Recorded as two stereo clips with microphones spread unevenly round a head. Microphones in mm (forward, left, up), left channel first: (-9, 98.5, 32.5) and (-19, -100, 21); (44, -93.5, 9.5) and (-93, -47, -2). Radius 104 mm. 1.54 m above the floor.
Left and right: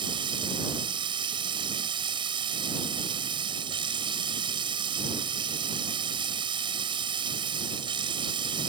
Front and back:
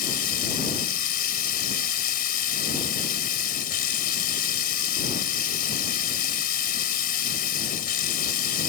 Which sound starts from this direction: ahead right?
Running water, at 0.0 s.